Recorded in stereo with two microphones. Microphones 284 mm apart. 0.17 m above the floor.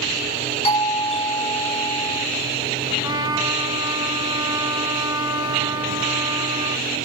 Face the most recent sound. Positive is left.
turn(degrees=-15)  # may be behind; listen again after turning